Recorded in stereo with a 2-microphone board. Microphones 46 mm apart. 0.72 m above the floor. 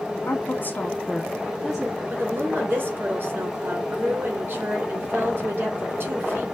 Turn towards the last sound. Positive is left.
turn(degrees=-50)  # may be behind; listen again after turning